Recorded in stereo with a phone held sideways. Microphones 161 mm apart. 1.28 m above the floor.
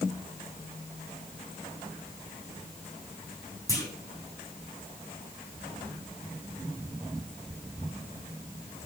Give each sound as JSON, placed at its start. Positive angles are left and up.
{"t": 3.7, "sound": "a clunk", "side_deg": 20, "distance_m": 3.0}